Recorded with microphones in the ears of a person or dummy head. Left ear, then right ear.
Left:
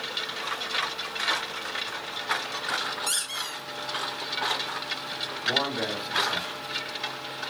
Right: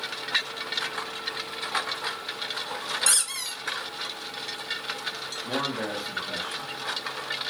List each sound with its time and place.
3.1 s a squeak: 60° right (ahead or behind), 1.5 m
5.4 s a man speaking: 5° right (ahead or behind), 1.1 m